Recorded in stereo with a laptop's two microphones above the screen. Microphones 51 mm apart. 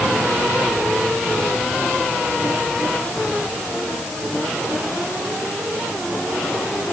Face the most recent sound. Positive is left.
No sound to turn to.